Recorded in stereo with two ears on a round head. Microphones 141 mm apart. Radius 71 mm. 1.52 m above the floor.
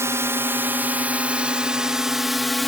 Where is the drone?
15° right (ahead or behind); by 2.7 s centre (ahead or behind).